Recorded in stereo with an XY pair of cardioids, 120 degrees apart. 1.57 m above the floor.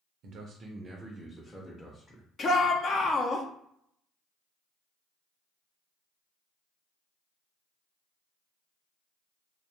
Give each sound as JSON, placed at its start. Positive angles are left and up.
{"t": 0.2, "sound": "a man speaking", "azimuth_deg": -65, "distance_m": 0.6}
{"t": 2.4, "sound": "a shout", "azimuth_deg": 40, "distance_m": 0.5}